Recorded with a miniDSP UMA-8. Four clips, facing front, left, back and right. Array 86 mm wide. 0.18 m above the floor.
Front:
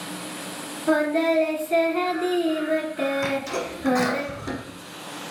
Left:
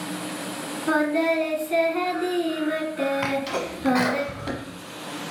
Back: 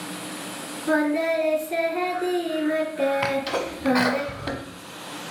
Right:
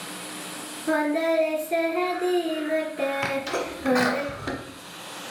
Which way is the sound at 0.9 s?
60° left.